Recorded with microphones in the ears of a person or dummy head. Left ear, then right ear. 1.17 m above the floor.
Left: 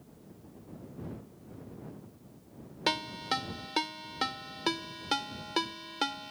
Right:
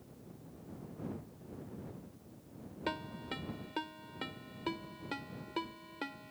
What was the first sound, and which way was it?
A ringtone, 45° left (ahead or behind).